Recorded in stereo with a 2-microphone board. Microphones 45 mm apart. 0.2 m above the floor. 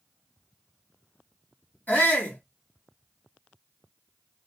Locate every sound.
1.9 s a shout: 40° left (ahead or behind), 1.9 m